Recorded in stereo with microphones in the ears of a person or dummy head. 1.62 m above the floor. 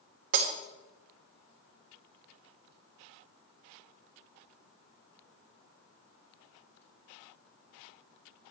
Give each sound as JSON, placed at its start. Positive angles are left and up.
{"t": 0.3, "sound": "breaking glass", "side_deg": -45, "distance_m": 1.3}